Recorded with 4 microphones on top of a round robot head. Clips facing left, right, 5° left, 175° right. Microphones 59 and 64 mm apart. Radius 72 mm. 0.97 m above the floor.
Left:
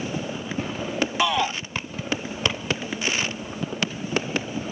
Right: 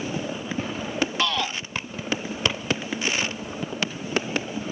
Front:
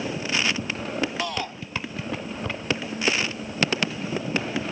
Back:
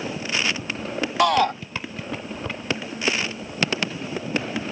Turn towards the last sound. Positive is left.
turn(degrees=165)